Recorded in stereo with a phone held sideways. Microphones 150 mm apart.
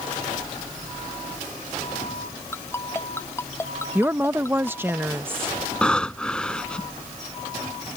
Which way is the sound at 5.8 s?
5° left (ahead or behind).